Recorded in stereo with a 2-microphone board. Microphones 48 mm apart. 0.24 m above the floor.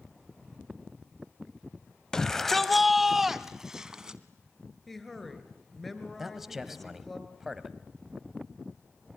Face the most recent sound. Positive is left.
turn(degrees=-10)  # may be behind; listen again after turning